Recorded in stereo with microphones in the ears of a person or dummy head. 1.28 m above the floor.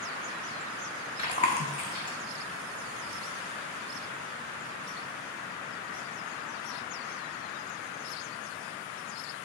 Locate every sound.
1.2 s chewing: 35° left (ahead or behind), 0.9 m